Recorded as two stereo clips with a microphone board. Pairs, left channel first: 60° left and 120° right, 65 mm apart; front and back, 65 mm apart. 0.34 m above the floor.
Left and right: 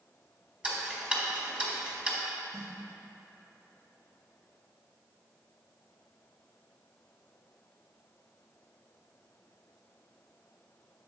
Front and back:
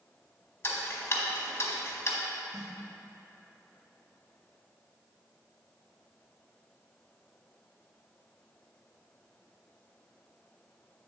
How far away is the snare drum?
About 2 m.